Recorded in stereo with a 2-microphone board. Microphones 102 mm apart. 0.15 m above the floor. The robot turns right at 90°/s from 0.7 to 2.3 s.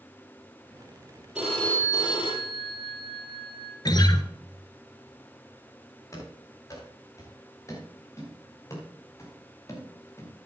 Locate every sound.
1.4 s a phone ringing: 10° right, 3.5 m; by 3.8 s 75° left, 3.5 m
3.9 s a guitar: 45° left (ahead or behind), 0.8 m
6.1 s running footsteps: 35° left (ahead or behind), 6 m; by 10.3 s 30° left (ahead or behind), 3.5 m